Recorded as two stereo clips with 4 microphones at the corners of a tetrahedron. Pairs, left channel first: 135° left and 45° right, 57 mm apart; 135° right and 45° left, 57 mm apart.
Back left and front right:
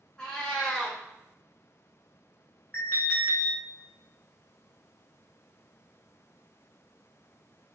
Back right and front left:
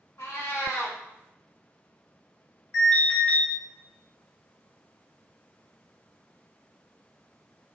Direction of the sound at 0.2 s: 150° right.